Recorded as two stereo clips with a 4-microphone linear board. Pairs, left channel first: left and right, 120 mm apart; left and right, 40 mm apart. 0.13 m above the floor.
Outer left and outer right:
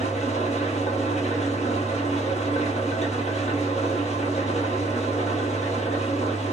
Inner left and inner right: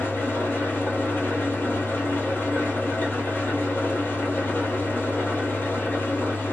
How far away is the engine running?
About 0.8 m.